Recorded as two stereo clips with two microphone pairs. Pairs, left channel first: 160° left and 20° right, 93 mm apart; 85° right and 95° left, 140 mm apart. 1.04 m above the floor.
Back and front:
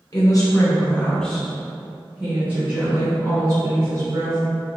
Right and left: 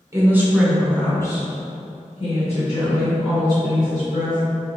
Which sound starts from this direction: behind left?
A woman speaking, at 0.1 s.